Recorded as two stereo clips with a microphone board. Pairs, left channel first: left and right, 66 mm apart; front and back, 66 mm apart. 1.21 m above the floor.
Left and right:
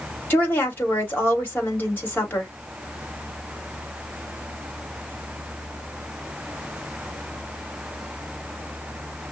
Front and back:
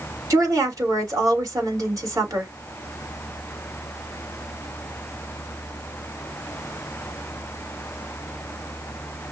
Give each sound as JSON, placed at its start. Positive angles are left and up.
{"t": 0.3, "sound": "a woman speaking", "azimuth_deg": 150, "distance_m": 2.5}